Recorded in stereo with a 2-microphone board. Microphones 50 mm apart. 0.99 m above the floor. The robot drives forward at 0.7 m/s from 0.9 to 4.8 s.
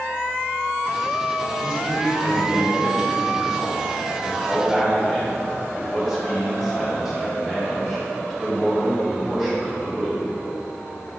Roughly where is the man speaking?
Centre.